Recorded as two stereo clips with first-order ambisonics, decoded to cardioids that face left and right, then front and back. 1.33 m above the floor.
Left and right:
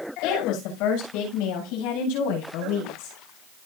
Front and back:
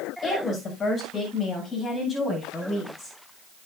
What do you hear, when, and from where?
0.2 s a woman speaking: 65° left, 6.5 m; by 3.1 s 80° left, 10.5 m